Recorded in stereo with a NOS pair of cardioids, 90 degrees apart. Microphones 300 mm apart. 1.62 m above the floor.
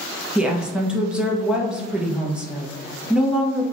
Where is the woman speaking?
5° right, 0.7 m.